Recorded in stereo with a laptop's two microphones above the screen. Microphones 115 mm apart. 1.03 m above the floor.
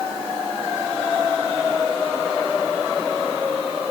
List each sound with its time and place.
Only background noise.